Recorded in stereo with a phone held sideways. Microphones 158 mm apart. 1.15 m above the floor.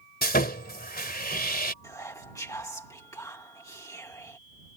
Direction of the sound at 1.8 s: 20° left (ahead or behind).